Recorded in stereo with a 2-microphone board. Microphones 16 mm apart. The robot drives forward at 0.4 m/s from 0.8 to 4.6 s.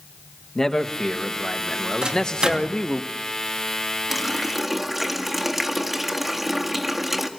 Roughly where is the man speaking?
Left.